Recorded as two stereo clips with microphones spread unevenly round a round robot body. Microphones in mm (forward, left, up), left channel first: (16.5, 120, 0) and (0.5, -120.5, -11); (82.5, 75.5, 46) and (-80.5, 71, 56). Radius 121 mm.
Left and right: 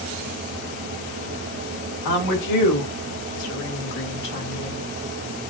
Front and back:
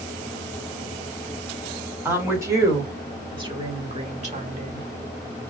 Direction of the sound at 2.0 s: 105° left.